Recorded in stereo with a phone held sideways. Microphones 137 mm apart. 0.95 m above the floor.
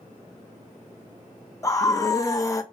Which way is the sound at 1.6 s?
25° left (ahead or behind).